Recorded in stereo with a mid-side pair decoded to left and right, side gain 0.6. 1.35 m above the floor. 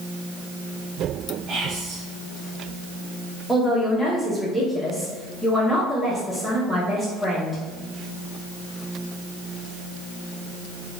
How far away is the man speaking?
About 1.0 m.